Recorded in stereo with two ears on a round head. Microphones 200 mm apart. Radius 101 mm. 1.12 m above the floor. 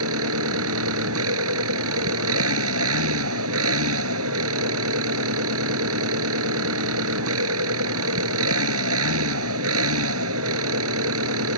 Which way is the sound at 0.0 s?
65° right (ahead or behind).